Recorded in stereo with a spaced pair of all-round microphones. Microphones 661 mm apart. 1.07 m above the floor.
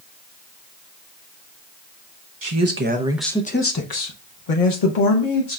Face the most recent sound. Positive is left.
turn(degrees=75)  # may be behind; listen again after turning